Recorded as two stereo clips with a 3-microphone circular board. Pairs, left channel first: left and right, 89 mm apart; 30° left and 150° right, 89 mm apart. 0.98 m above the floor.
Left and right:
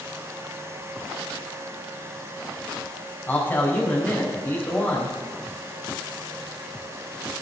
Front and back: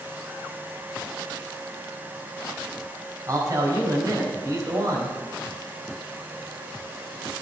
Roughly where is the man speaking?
Behind left.